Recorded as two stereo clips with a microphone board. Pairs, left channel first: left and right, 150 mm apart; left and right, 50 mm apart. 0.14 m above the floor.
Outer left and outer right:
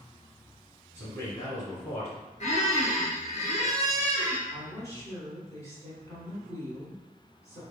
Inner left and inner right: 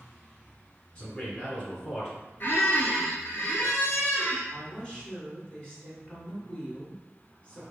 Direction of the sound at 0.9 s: 20° left (ahead or behind).